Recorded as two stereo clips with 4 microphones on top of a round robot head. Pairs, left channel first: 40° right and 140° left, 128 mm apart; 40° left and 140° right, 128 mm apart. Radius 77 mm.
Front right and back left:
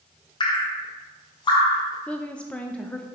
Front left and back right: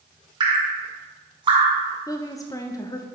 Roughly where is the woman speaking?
Ahead left.